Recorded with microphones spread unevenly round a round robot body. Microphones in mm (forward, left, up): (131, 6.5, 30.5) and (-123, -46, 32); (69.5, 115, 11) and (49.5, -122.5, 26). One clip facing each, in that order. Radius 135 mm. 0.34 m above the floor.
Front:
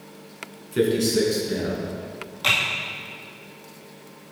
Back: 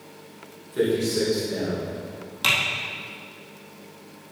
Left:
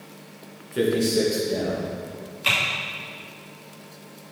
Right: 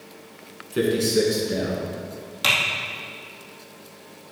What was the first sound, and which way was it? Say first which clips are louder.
A man speaking: front 2 dB, even; 35° right.